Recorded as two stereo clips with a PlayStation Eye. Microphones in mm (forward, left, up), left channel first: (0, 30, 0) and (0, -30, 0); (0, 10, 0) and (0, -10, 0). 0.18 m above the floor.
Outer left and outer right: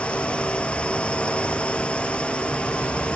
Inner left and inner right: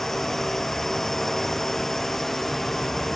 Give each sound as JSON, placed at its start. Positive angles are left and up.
{"t": 0.0, "sound": "a drone", "side_deg": 20}